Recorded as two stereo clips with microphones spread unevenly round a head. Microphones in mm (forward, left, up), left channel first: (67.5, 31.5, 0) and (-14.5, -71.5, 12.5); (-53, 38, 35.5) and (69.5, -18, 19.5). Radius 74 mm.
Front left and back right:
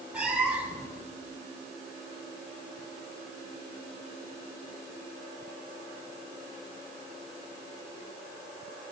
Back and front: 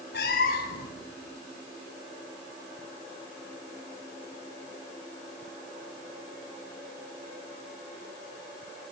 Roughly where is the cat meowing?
Behind left.